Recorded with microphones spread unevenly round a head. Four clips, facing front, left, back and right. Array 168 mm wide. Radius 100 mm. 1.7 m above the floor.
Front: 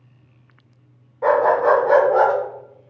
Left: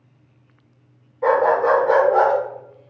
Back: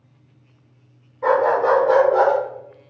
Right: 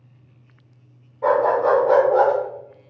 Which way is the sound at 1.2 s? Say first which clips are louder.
Left 1 dB, front 1 dB; 35° right.